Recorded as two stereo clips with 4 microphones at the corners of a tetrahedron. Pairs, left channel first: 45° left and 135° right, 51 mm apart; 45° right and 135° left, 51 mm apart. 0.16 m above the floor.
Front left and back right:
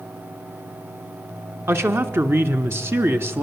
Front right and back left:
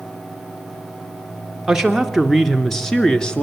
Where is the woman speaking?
150° right, 1.9 m; by 3.4 s 115° right, 1.7 m.